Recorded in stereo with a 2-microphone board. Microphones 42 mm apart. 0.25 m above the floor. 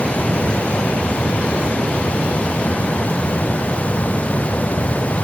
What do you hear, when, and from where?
Only background noise.